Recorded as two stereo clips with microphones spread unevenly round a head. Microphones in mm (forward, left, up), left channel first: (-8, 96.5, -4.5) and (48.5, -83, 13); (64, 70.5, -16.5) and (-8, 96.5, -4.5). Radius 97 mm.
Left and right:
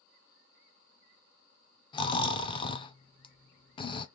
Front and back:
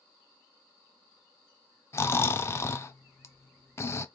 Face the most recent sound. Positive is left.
turn(degrees=40)